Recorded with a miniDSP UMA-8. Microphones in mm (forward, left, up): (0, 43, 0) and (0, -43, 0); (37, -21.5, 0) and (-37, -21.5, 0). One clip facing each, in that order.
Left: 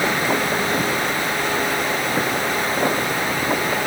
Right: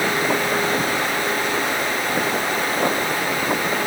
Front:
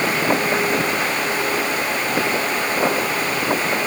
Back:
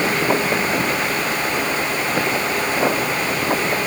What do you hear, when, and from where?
Only background noise.